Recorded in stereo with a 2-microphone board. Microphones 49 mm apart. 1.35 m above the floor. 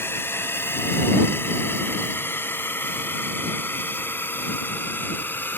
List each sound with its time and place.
0.0 s a drone: 55° left (ahead or behind); by 5.6 s 45° left (ahead or behind)